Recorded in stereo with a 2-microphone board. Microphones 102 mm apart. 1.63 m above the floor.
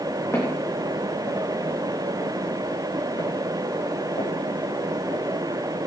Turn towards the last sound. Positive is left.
turn(degrees=70)  # may be behind; listen again after turning